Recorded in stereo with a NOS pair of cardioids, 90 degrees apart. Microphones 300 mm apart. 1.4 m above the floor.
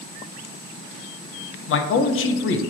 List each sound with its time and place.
1.7 s a man speaking: 45° left, 0.6 m